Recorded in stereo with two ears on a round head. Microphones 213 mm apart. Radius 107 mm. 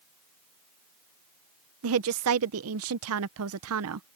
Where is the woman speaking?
65° right (ahead or behind).